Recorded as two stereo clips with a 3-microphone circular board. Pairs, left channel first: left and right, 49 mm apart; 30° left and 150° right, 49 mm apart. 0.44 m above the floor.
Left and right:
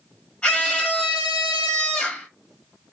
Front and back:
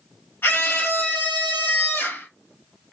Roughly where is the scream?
Ahead left.